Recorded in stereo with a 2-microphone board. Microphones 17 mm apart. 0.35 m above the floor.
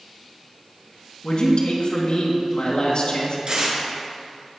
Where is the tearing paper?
70° right (ahead or behind), 3 m.